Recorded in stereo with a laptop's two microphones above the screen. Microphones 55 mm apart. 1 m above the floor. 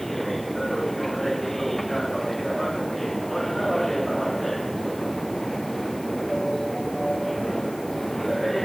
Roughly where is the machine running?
Centre.